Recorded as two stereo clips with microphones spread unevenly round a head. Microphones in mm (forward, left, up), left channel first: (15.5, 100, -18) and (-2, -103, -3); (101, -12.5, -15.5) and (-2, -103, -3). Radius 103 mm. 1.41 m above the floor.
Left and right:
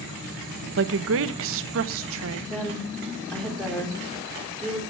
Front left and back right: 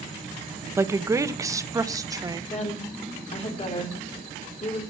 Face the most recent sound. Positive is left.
turn(degrees=0)